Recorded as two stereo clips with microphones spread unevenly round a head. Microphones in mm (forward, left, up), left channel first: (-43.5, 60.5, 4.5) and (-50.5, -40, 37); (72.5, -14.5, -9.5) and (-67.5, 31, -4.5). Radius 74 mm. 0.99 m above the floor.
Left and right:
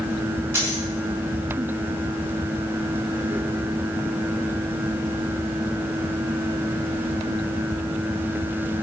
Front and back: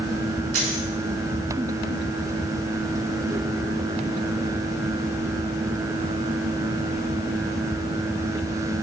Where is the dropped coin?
160° right, 5 m.